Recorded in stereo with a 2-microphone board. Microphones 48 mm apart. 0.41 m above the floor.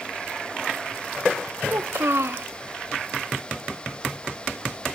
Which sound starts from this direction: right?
A child speaking, at 1.7 s.